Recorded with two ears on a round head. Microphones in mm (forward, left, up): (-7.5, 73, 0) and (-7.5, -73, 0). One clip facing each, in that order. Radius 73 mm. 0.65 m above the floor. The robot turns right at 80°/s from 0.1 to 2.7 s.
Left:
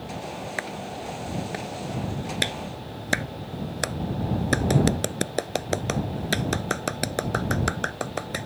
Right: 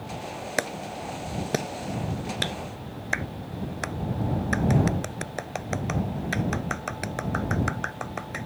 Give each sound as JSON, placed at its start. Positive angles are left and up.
{"t": 0.6, "sound": "a clap", "side_deg": -50}